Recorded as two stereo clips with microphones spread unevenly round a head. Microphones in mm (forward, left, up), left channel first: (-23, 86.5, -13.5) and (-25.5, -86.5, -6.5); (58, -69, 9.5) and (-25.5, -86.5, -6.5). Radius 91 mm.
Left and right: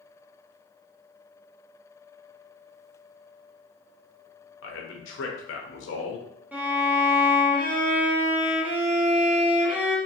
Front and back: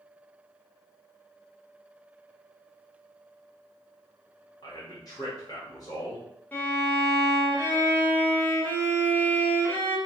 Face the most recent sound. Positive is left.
turn(degrees=-20)